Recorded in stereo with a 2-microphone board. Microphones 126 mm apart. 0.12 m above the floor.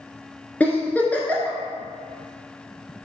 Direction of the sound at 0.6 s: 15° left (ahead or behind).